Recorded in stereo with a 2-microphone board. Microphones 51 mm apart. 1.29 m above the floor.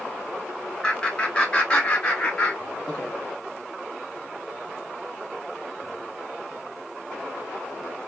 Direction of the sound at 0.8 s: 10° left (ahead or behind).